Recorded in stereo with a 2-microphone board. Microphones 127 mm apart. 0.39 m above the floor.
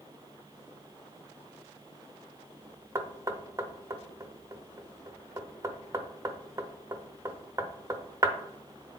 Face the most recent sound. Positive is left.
turn(degrees=-25)  # may be behind; listen again after turning